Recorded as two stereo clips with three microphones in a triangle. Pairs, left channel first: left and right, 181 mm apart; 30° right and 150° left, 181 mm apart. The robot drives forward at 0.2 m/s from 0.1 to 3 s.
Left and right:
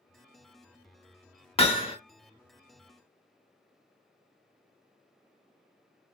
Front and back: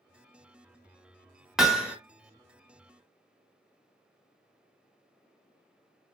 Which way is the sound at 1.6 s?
65° left.